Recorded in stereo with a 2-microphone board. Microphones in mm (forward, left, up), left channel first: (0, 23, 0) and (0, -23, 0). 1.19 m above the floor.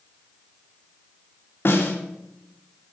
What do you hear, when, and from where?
1.6 s a snare drum: 50° left (ahead or behind), 2 m